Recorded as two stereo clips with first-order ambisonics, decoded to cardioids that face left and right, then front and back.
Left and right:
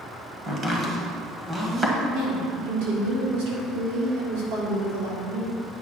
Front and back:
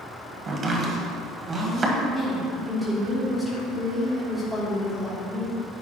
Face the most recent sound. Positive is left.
turn(degrees=-90)